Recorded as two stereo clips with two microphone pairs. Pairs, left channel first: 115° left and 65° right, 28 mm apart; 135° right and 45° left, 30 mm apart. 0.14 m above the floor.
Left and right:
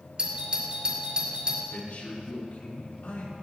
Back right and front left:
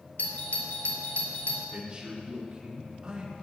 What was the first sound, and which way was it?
A doorbell, 120° right.